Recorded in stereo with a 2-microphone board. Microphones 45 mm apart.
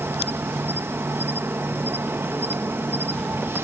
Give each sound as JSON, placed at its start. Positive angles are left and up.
{"t": 0.0, "sound": "an insect", "side_deg": -60}